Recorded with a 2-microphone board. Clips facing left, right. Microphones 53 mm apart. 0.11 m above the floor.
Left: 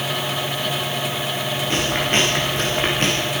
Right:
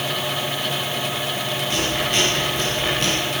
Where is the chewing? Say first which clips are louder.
Left 3 dB; 35° left (ahead or behind), 9 m.